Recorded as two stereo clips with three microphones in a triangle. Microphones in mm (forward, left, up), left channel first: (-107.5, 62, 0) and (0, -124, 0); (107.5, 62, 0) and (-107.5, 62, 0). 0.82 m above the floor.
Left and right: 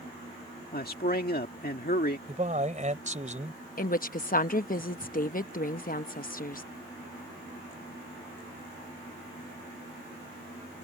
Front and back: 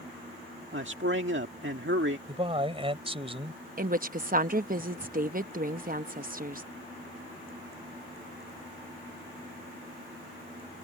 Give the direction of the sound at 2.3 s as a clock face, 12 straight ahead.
4 o'clock.